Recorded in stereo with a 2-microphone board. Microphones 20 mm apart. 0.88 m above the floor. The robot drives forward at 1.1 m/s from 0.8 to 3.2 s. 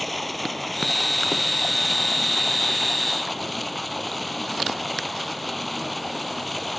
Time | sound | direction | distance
0.0 | running water | centre (ahead or behind) | ?